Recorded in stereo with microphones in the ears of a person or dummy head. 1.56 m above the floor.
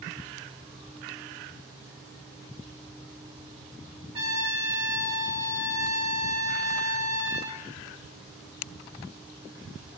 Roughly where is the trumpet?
Right.